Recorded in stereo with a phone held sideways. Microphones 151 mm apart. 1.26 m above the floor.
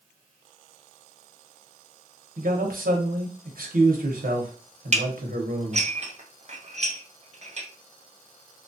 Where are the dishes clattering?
50° right (ahead or behind), 0.5 m.